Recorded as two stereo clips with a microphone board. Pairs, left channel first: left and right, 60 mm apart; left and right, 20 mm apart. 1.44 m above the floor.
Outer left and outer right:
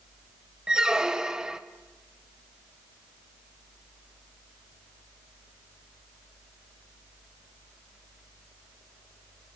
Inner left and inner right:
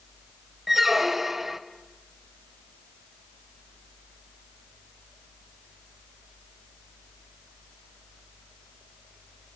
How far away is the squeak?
About 0.5 m.